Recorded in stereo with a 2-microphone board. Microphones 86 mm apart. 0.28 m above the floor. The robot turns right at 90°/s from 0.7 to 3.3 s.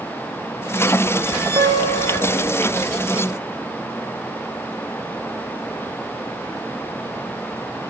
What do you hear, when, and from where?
1.6 s a guitar: 140° right, 0.7 m; by 2.5 s 50° right, 0.7 m